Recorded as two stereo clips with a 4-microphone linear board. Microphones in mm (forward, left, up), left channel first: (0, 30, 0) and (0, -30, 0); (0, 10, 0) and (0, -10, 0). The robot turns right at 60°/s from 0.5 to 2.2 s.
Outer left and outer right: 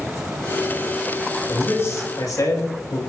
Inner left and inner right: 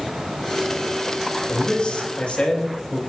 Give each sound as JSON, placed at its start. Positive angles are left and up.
{"t": 1.5, "sound": "a man speaking", "azimuth_deg": 30, "distance_m": 4.0}